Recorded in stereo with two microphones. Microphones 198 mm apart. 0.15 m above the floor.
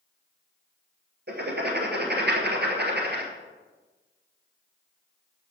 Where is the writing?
60° right (ahead or behind), 1.6 m.